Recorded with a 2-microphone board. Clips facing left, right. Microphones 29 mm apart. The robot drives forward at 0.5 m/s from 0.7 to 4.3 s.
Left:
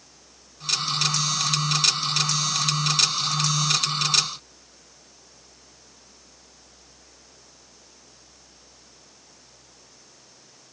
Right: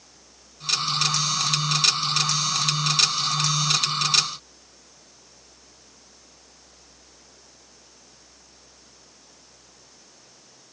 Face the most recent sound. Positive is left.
No sound to turn to.